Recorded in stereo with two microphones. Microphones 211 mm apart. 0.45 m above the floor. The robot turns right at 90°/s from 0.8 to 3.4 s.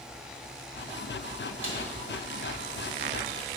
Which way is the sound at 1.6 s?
70° left (ahead or behind).